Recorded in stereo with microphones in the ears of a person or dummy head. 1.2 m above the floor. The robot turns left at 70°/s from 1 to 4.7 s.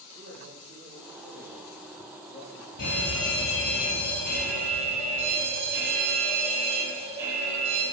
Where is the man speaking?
90° right, 3 m; by 2.7 s 155° left, 3 m.